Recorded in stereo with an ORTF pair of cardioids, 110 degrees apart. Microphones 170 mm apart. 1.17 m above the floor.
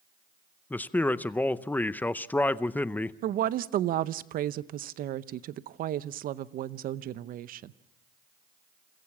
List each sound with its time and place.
0.7 s a man speaking: 10° left, 0.6 m
3.2 s a woman speaking: 55° right, 0.7 m